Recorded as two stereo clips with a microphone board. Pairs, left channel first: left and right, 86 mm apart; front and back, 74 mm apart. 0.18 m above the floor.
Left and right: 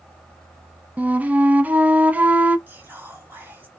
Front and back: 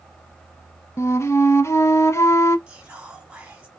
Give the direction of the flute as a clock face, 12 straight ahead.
1 o'clock.